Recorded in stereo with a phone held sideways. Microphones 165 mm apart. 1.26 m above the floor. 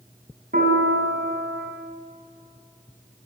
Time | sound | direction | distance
0.5 | a piano | 70° right (ahead or behind) | 4.5 m